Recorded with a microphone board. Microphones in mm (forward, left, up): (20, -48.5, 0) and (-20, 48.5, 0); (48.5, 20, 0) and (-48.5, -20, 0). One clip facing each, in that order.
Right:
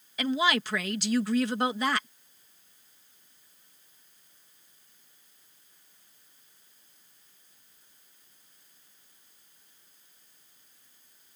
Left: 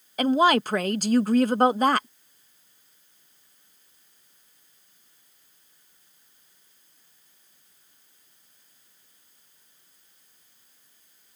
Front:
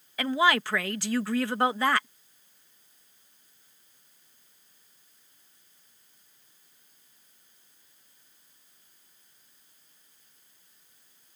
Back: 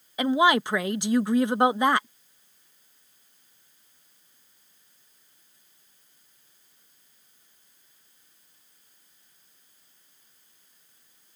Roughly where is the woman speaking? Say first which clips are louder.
Left 7 dB, back 4 dB; behind left.